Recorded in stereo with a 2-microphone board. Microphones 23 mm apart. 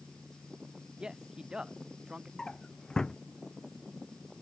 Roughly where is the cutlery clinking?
No cutlery clinking in this recording.